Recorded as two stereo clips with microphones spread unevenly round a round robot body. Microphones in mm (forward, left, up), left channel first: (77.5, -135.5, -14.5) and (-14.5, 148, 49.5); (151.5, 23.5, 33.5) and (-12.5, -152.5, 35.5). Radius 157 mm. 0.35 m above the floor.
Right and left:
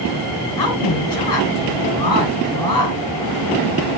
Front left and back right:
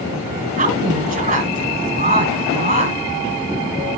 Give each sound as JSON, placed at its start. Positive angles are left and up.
{"t": 0.6, "sound": "a woman speaking", "azimuth_deg": -80, "distance_m": 6.0}